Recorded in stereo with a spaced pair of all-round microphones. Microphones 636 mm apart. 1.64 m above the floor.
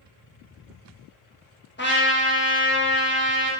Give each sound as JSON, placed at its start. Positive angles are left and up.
{"t": 1.8, "sound": "a trumpet", "side_deg": 20, "distance_m": 0.8}